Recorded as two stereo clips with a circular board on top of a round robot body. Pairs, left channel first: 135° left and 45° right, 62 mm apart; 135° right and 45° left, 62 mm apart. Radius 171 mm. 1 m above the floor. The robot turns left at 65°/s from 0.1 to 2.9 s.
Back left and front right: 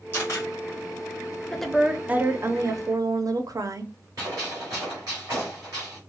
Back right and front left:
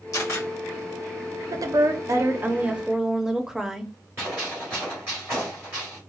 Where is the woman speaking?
55° left, 0.6 m; by 3.9 s 35° right, 0.6 m.